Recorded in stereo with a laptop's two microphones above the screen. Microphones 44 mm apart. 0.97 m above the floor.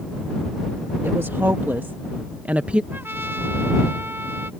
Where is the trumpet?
55° right (ahead or behind).